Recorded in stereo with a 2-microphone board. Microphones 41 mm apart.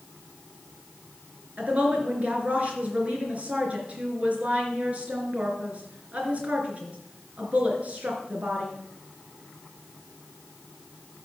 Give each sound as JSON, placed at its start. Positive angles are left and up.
{"t": 1.6, "sound": "a woman speaking", "side_deg": -30, "distance_m": 3.5}